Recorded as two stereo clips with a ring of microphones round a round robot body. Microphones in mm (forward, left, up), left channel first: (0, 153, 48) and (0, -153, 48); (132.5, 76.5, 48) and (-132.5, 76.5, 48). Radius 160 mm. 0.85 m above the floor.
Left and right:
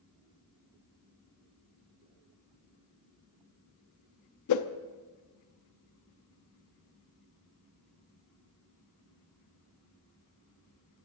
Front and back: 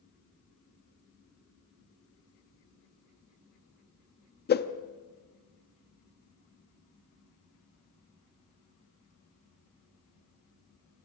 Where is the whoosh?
55° left, 0.9 m.